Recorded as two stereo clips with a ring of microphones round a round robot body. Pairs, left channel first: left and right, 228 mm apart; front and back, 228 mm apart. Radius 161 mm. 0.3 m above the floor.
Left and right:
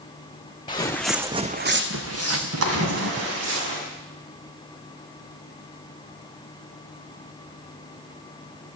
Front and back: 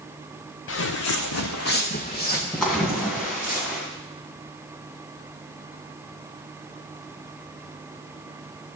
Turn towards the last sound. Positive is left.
turn(degrees=-90)